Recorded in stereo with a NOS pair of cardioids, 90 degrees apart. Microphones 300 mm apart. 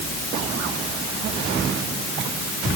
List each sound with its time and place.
Only background noise.